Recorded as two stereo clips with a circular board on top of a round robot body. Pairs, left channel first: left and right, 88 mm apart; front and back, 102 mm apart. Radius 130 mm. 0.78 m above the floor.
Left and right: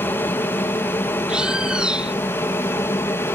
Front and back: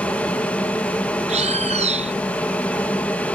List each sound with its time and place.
0.0 s an aircraft: 60° left; by 3.4 s 65° left
1.3 s a bird: 170° right